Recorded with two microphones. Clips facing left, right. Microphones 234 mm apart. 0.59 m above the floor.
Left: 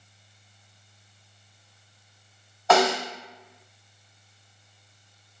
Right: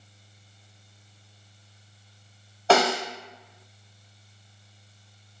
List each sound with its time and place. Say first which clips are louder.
2.7 s a snare drum: even; 30° right (ahead or behind), 0.9 m